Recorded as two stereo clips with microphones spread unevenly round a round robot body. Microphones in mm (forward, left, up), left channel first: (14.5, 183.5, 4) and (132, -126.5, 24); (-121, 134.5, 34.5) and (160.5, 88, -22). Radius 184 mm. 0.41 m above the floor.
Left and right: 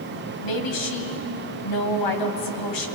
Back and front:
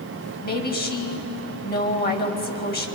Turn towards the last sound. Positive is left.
turn(degrees=110)